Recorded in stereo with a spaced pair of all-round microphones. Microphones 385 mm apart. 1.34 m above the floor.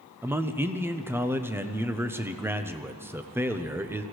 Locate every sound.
0.2 s a man speaking: 5° right (ahead or behind), 0.8 m